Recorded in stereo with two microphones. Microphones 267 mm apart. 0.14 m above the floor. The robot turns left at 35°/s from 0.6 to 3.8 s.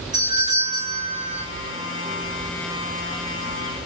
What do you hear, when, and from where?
0.1 s a doorbell: 15° right (ahead or behind), 3.5 m; by 1.4 s 40° right (ahead or behind), 3.5 m